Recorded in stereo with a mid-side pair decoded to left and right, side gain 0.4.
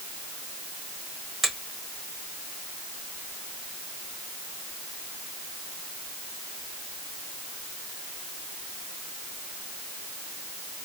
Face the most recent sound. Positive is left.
turn(degrees=-40)